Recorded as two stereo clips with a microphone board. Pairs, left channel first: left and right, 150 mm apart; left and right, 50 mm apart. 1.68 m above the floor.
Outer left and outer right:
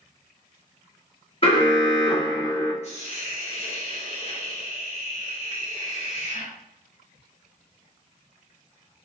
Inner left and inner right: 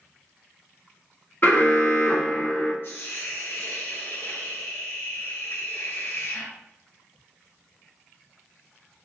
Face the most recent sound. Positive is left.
turn(degrees=45)  # may be behind; listen again after turning